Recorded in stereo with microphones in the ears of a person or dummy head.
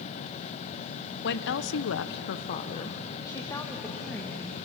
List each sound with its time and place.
1.2 s a woman speaking: 55° left (ahead or behind), 1.0 m; by 4.6 s 5° left (ahead or behind), 2.5 m